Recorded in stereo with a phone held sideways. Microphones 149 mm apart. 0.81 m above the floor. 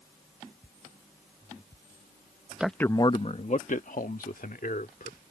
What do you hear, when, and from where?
2.6 s a man speaking: 5° right (ahead or behind); by 5.2 s 75° left (ahead or behind)